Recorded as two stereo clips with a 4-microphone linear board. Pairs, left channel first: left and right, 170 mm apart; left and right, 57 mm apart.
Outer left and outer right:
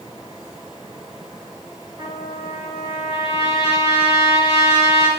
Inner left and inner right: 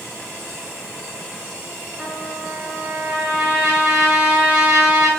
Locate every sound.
2.0 s a trumpet: 30° right (ahead or behind), 3.5 m